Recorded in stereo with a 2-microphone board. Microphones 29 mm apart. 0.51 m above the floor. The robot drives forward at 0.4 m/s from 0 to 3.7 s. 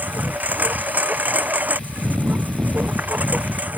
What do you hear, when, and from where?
0.0 s a lawn mower: 85° right; by 3.8 s 75° right (ahead or behind)